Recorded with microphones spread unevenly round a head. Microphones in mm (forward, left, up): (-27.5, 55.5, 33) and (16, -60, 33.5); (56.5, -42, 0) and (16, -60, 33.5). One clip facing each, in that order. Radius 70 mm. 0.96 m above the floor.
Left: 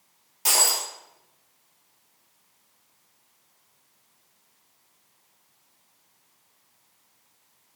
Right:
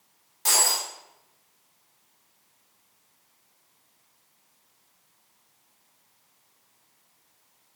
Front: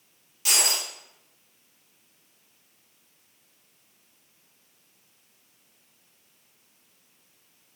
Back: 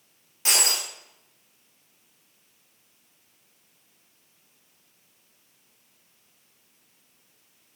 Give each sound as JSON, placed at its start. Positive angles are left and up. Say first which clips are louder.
{"t": 0.5, "sound": "breaking glass", "louder": "even, back 1 dB", "azimuth_deg": -170, "distance_m": 2.5}